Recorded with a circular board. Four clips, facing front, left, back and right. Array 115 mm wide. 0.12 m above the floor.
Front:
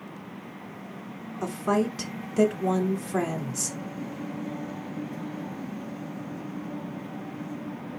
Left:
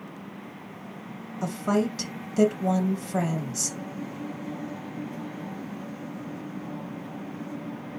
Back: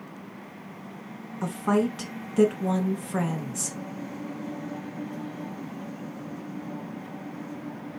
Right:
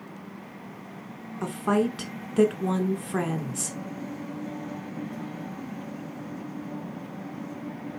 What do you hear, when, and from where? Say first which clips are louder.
1.4 s a woman speaking: right 1 dB, back 1 dB; 105° right, 1.1 m